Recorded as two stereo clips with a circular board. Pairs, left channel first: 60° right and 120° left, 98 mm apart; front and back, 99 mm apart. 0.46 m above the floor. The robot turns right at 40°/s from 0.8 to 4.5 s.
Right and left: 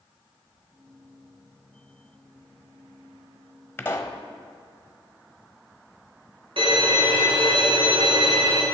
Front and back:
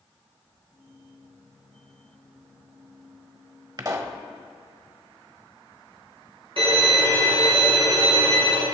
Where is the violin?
150° left, 3 m.